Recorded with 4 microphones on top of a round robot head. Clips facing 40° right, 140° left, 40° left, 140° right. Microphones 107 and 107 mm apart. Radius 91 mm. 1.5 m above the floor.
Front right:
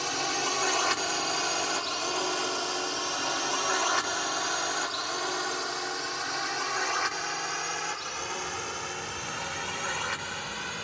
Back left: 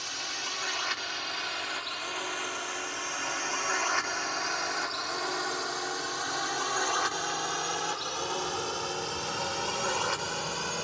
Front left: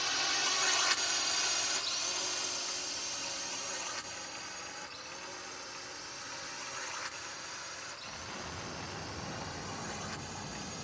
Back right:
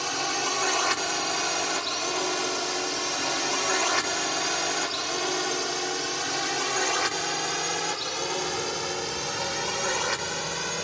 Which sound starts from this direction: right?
A drone, at 0.0 s.